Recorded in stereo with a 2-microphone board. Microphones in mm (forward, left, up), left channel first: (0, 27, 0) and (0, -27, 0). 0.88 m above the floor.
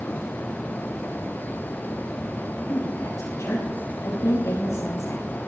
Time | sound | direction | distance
2.7 | a woman speaking | 75° left (ahead or behind) | 6 m